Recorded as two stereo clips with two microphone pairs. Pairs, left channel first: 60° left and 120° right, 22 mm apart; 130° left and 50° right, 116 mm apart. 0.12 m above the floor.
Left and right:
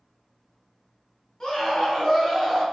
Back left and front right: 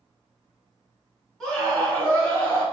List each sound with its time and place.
1.4 s a scream: 50° left, 1.2 m; by 2.6 s 120° left, 1.1 m